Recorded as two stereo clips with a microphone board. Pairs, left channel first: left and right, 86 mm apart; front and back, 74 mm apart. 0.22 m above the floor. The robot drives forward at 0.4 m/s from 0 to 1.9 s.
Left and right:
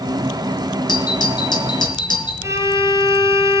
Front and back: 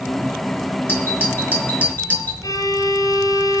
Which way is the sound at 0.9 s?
60° left.